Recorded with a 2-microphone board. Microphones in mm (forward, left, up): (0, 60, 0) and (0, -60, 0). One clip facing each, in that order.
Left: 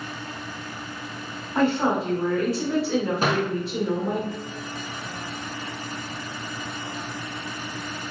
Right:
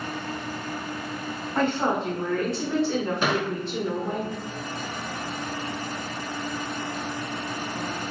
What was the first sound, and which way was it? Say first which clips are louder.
A woman speaking: left 3 dB; 5° left (ahead or behind).